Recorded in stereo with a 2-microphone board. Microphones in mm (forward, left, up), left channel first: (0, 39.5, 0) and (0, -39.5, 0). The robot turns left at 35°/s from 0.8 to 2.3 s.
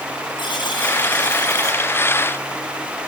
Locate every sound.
0.4 s a buzzer: 85° left, 7.5 m; by 1.8 s 50° left, 7.5 m